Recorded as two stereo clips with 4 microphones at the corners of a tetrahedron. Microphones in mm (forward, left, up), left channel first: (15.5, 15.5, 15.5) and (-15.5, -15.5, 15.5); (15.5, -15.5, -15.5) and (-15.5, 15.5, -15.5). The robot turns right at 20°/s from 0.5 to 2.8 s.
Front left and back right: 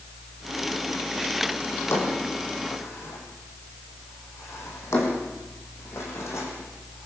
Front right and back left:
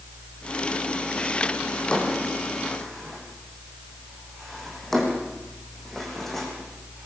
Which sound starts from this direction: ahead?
A drawer, at 1.7 s.